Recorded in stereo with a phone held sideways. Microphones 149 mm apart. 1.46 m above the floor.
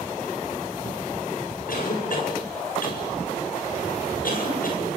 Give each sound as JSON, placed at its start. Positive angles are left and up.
{"t": 1.7, "sound": "a cough", "side_deg": 70, "distance_m": 7.5}